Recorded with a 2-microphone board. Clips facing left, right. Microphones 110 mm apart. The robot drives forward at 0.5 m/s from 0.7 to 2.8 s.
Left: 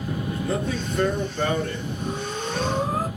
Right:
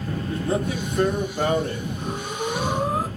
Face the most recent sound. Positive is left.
turn(degrees=-20)  # may be behind; listen again after turning